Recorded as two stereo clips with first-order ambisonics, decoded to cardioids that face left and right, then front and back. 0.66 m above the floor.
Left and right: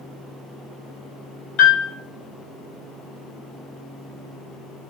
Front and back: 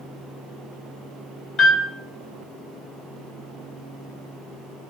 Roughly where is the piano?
Left.